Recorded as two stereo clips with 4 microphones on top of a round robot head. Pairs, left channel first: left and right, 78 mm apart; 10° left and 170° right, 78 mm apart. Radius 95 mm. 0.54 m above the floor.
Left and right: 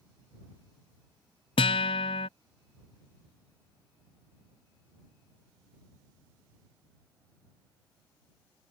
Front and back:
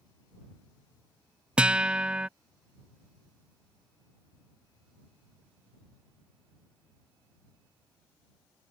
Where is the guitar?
110° left.